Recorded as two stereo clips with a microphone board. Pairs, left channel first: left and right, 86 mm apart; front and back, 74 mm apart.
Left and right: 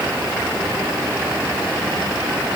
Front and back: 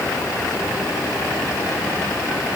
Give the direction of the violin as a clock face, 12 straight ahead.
I don't hear a violin.